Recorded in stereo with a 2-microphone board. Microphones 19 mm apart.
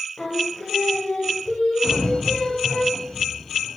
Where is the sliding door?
35° left (ahead or behind), 3 m.